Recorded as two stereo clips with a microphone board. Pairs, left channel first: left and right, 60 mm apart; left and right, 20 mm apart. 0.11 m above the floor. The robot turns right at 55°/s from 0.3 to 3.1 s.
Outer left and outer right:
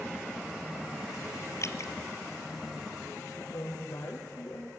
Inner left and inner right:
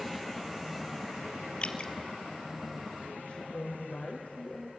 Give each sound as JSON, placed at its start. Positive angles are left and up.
{"t": 1.6, "sound": "dripping", "side_deg": 55, "distance_m": 1.4}
{"t": 3.3, "sound": "a woman speaking", "side_deg": 65, "distance_m": 4.5}